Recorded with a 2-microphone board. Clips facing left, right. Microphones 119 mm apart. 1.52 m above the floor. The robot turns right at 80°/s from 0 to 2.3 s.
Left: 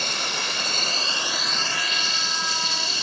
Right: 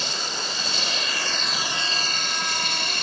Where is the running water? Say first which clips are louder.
Left 1 dB; 60° left; by 3.0 s 115° right.